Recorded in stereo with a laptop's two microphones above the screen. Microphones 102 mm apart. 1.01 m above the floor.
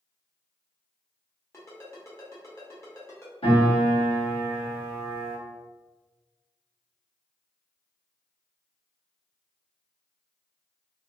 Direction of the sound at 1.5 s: 30° left (ahead or behind).